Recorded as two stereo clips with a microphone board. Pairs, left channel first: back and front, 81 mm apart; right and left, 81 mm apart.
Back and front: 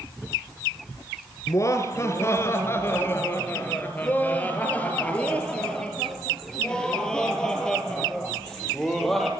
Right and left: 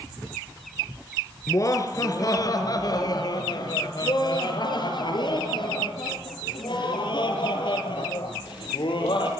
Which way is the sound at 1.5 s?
135° right.